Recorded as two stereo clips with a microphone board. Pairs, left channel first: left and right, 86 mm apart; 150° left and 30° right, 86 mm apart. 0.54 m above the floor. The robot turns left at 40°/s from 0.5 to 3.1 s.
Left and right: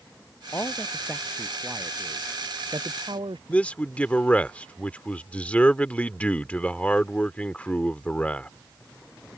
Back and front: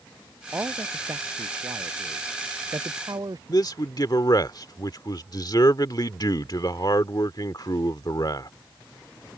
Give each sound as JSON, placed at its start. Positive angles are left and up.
{"t": 0.5, "sound": "a man speaking", "azimuth_deg": 30}
{"t": 3.5, "sound": "a man speaking", "azimuth_deg": 160}